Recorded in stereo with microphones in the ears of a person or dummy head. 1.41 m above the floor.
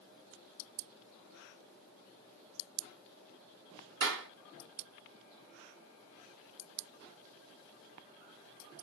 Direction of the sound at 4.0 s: 70° right (ahead or behind).